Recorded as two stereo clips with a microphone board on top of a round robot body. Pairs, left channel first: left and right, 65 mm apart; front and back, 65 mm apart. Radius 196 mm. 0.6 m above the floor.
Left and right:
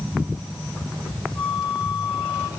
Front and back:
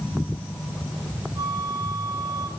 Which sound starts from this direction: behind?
A flute, at 1.4 s.